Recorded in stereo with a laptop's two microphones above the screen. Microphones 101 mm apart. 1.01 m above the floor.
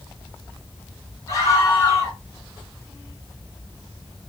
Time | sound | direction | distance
1.3 | a scream | 30° left (ahead or behind) | 2.5 m